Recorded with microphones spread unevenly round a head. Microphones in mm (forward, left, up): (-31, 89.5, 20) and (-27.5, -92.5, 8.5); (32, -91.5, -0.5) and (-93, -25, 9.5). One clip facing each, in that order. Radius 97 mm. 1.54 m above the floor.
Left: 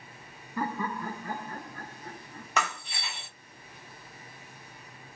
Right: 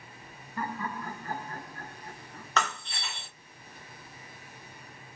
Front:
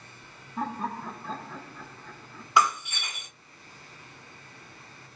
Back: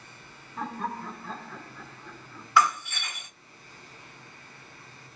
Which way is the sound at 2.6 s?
35° left.